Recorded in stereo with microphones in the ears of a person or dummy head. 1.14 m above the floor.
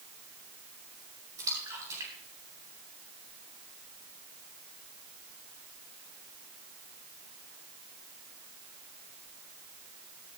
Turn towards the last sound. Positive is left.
turn(degrees=-20)  # may be behind; listen again after turning